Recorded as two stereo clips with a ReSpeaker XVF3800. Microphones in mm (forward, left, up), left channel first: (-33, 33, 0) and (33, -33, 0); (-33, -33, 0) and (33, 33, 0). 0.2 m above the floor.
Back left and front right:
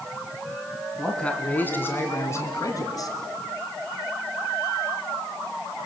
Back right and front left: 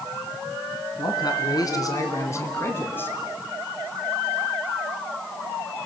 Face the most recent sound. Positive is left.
turn(degrees=165)